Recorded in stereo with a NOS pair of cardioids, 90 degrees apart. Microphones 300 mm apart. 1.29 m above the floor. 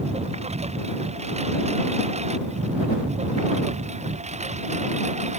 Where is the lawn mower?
20° right.